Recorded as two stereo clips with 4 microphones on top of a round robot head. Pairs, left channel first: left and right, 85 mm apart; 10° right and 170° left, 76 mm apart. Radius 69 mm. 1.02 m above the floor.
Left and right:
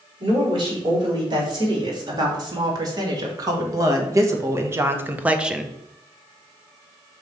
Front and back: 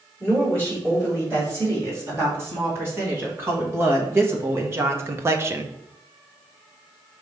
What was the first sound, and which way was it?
A woman speaking, 125° right.